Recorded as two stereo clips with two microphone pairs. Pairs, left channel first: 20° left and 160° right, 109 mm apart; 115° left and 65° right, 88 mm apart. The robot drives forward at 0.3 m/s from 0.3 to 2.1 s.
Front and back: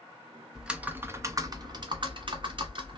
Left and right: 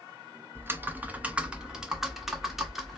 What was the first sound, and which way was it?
Typing on a keyboard, 95° right.